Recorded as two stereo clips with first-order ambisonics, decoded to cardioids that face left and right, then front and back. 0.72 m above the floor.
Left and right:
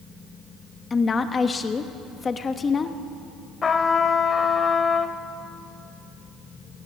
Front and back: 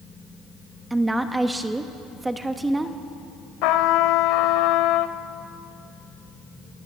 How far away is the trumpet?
About 1.0 m.